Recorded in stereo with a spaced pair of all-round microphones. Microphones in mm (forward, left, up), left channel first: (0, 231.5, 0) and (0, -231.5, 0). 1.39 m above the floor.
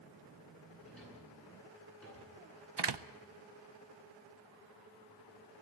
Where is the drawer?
5° left (ahead or behind), 10 m.